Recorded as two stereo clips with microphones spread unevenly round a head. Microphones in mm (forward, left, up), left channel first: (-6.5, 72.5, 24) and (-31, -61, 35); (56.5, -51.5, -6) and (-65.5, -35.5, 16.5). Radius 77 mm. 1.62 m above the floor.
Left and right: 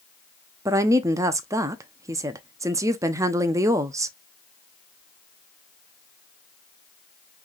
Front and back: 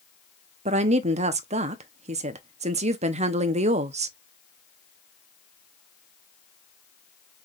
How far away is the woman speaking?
About 0.6 m.